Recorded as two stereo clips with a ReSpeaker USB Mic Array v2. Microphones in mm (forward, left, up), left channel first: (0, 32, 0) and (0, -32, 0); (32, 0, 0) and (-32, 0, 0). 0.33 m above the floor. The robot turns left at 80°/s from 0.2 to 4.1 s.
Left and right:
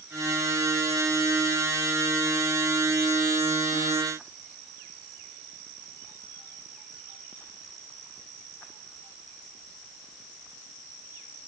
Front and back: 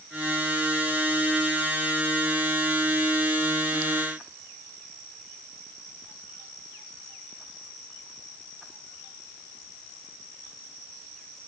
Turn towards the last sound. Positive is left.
No sound to turn to.